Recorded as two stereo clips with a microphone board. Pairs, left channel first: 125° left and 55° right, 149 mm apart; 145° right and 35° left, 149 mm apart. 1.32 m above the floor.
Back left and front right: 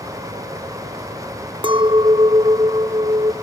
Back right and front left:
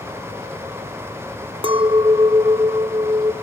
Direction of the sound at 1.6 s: 10° right.